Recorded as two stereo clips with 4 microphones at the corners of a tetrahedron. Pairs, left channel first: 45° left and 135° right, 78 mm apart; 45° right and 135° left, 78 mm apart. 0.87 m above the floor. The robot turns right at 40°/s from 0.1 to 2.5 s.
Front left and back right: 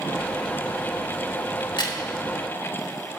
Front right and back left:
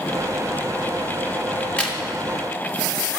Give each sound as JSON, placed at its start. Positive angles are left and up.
{"t": 1.6, "sound": "a crack", "azimuth_deg": 25, "distance_m": 1.7}